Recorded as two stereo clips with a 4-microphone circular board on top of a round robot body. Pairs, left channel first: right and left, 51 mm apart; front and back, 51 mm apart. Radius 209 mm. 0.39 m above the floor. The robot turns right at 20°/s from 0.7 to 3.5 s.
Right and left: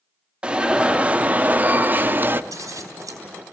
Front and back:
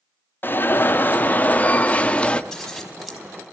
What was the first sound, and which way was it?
An alarm, 25° left.